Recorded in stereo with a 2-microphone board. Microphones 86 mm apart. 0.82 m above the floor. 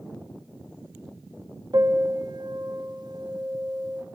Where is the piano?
60° right (ahead or behind), 1.5 m.